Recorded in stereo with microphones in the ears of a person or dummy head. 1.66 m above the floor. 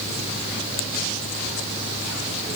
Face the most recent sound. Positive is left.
No sound to turn to.